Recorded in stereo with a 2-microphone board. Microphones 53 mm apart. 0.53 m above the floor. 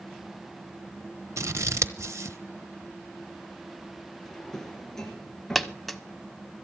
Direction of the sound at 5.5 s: Centre (ahead or behind).